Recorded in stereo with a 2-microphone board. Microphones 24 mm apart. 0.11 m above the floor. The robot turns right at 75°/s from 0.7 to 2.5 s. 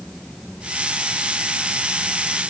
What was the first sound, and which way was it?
Only background noise.